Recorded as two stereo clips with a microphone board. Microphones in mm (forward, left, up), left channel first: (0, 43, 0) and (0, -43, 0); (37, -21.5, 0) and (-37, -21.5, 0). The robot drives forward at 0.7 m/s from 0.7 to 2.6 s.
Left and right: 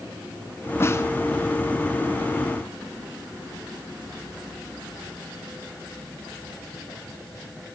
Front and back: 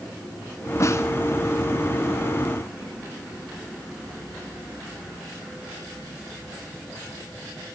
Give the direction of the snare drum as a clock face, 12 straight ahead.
11 o'clock.